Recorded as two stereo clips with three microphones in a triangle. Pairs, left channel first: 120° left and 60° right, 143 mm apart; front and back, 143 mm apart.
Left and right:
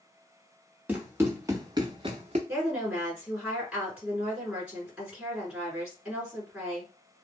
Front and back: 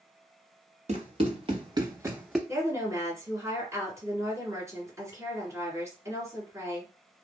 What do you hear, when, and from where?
0.9 s running footsteps: 135° right, 1.4 m; by 2.4 s 90° right, 0.7 m
2.5 s a woman speaking: 135° right, 1.8 m